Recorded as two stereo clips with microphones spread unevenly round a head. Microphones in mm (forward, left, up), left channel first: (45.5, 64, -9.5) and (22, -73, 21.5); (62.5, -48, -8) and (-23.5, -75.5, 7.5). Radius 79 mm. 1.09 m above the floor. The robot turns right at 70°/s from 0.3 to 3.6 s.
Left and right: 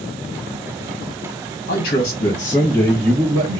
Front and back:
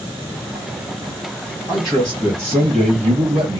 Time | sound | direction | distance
1.7 | a man speaking | 100° left | 0.9 m